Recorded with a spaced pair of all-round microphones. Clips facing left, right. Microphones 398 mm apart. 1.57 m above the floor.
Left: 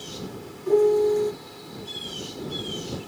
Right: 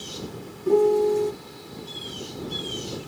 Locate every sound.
0.7 s a piano: 40° right (ahead or behind)